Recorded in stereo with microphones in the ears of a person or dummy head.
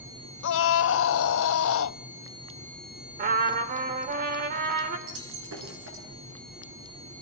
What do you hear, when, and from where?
0.4 s a scream: 70° left (ahead or behind), 0.9 m
3.2 s a trumpet: 45° right (ahead or behind), 3 m
5.1 s breaking glass: 85° right, 9 m